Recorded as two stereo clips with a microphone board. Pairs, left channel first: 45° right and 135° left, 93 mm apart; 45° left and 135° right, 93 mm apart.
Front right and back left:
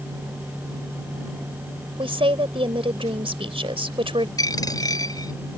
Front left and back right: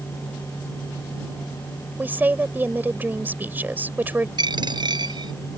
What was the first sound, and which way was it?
A woman speaking, 155° left.